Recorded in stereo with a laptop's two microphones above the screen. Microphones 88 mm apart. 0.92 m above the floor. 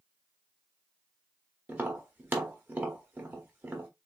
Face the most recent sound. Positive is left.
turn(degrees=-25)  # may be behind; listen again after turning